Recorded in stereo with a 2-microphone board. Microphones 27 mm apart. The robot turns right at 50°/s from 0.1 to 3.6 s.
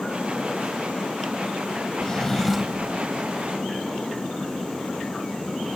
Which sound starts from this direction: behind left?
A drawer, at 2.0 s.